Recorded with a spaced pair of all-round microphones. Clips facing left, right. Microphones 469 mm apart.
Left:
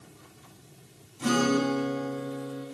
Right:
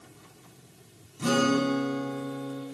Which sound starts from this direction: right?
A guitar, at 1.2 s.